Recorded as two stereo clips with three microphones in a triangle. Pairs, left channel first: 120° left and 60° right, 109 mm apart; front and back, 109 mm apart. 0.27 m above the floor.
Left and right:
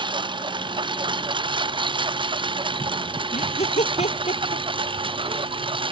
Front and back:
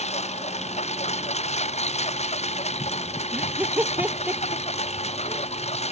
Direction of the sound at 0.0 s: 15° right.